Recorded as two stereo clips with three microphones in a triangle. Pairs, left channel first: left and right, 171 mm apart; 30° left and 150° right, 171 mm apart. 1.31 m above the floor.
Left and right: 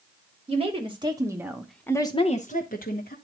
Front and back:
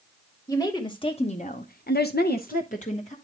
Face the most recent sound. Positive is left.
turn(degrees=75)